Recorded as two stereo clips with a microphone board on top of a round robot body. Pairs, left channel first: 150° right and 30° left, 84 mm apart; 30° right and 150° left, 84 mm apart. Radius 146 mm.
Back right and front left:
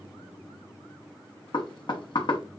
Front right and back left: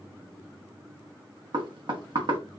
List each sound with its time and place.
1.5 s knocking: straight behind, 1.0 m